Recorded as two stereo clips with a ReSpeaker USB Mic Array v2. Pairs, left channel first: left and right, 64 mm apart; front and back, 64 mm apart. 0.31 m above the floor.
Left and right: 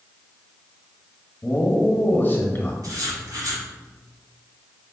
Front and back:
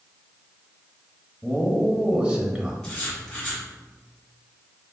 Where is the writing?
80° right, 1.8 m.